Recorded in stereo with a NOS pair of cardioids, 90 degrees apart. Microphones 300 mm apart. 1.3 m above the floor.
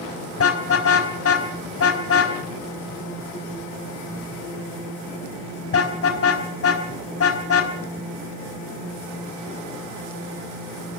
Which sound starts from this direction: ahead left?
A car horn, at 0.4 s.